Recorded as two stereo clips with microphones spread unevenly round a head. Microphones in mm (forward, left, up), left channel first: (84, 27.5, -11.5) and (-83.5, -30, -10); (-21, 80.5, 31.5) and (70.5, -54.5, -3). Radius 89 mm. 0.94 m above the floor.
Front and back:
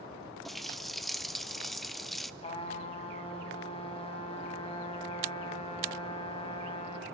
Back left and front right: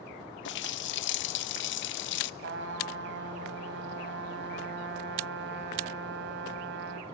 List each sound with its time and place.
0.5 s a running tap: 110° left, 0.5 m
2.4 s a trumpet: 40° right, 2 m